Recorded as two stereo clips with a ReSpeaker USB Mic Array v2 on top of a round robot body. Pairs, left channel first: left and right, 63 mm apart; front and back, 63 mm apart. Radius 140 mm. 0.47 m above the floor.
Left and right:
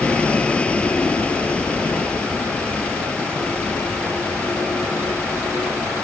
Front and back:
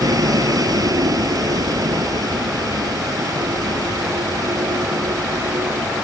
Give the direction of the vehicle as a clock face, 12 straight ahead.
7 o'clock.